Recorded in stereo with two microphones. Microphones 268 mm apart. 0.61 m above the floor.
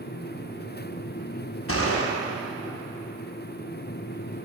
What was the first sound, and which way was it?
A gunshot, 55° left (ahead or behind).